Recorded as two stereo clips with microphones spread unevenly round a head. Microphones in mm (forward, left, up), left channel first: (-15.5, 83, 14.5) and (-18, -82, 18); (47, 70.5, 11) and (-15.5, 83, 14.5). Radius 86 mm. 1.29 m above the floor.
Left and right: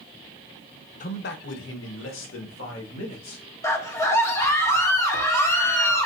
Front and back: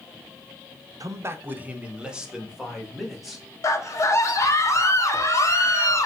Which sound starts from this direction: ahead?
A scream, at 3.6 s.